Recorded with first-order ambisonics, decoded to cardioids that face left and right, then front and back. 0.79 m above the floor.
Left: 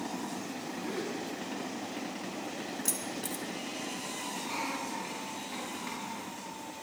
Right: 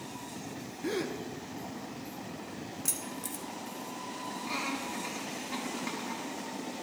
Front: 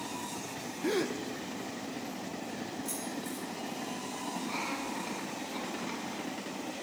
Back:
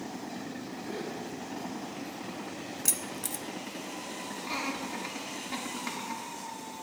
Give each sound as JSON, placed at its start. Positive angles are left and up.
{"t": 0.8, "sound": "a gasp", "azimuth_deg": -25, "distance_m": 0.6}
{"t": 2.9, "sound": "keys jangling", "azimuth_deg": 180, "distance_m": 0.5}
{"t": 4.4, "sound": "laughter", "azimuth_deg": -165, "distance_m": 2.5}